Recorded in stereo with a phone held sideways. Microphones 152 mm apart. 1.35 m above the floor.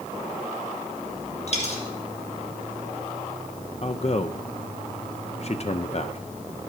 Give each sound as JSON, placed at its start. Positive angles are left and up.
{"t": 1.5, "sound": "a dropped coin", "side_deg": 50, "distance_m": 1.9}
{"t": 3.8, "sound": "a man speaking", "side_deg": 45, "distance_m": 0.6}